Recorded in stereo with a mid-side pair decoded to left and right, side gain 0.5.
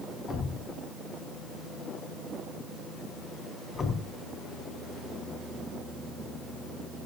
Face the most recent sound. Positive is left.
turn(degrees=40)